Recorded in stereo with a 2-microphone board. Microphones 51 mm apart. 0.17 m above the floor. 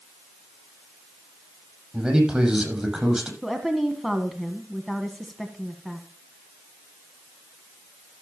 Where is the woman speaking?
Centre (ahead or behind), 1.5 m.